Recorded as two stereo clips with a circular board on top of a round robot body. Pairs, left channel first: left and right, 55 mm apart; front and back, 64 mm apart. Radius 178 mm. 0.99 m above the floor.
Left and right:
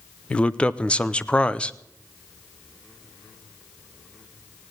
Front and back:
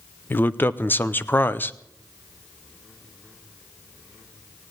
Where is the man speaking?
35° left, 0.9 m.